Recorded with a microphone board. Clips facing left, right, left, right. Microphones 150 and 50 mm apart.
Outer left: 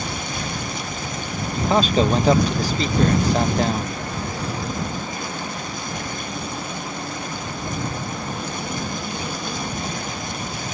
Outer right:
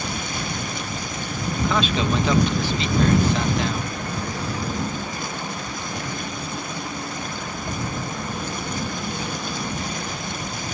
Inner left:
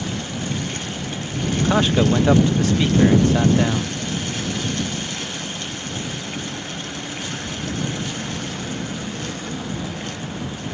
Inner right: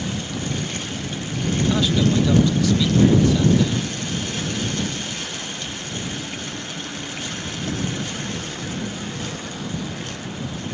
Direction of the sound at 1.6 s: 40° left (ahead or behind).